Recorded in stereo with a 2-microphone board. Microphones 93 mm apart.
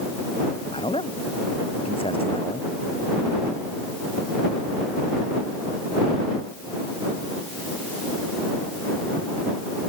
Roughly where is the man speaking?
Left.